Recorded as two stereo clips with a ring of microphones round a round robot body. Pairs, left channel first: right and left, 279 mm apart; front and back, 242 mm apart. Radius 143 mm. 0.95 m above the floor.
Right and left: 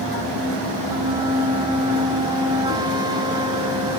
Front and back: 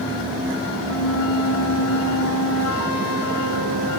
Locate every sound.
0.9 s a flute: 15° left